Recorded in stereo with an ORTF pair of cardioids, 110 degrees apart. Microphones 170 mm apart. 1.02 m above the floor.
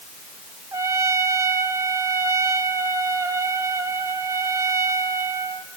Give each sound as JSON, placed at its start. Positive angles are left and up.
{"t": 0.7, "sound": "a trumpet", "azimuth_deg": -20, "distance_m": 1.8}